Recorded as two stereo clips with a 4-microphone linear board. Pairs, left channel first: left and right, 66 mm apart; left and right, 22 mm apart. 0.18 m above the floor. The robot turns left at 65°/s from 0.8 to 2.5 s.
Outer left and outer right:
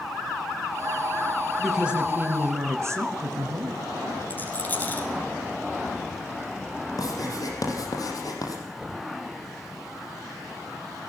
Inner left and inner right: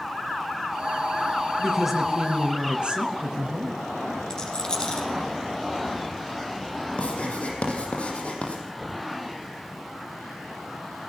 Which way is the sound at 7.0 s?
65° left (ahead or behind).